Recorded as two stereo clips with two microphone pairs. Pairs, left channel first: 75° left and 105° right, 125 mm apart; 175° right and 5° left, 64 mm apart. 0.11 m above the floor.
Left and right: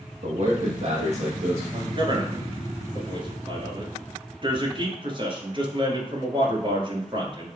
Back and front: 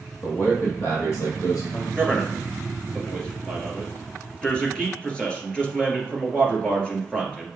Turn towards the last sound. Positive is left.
turn(degrees=-110)